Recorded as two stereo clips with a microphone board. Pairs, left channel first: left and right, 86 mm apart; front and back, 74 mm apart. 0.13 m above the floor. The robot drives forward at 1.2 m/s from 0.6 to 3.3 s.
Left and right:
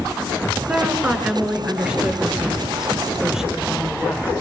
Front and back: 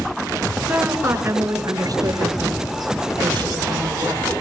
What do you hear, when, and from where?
0.7 s a woman speaking: 140° right, 1.5 m; by 4.3 s 175° right, 4 m